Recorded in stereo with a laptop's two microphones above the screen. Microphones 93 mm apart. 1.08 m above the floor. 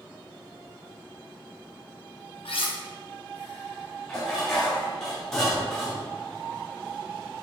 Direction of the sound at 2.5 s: 70° left (ahead or behind).